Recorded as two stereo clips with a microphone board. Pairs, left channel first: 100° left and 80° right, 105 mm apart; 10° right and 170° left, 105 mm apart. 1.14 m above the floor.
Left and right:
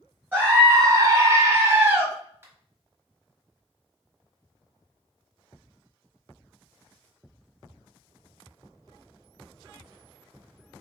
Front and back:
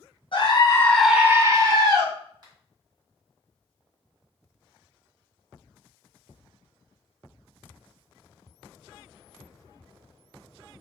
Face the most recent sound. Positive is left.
turn(degrees=-140)